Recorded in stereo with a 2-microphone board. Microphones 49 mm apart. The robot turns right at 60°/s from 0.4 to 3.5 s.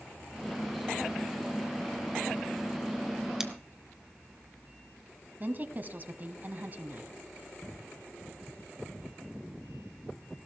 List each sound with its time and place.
3.4 s scissors: 10° right (ahead or behind), 1.2 m; by 3.5 s 5° right (ahead or behind), 1.2 m
5.4 s a woman speaking: 40° right (ahead or behind), 1.2 m